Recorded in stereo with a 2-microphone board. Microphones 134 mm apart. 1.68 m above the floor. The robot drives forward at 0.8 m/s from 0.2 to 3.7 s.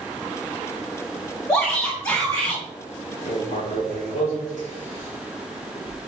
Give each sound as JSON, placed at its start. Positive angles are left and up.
{"t": 1.5, "sound": "a shout", "side_deg": 20, "distance_m": 2.0}
{"t": 3.2, "sound": "writing", "side_deg": 70, "distance_m": 4.5}